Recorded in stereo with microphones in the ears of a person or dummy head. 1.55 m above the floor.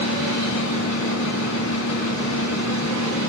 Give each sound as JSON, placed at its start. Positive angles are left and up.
{"t": 0.0, "sound": "a fan", "side_deg": 85, "distance_m": 2.5}